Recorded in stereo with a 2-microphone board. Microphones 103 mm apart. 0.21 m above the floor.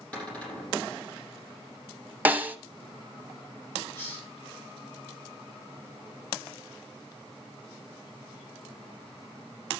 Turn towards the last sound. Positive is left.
turn(degrees=15)  # may be behind; listen again after turning